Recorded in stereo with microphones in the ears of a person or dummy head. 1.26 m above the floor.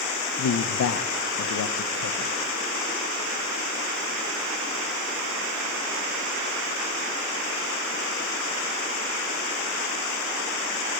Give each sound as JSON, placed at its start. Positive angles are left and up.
{"t": 0.4, "sound": "a man speaking", "side_deg": 75, "distance_m": 0.5}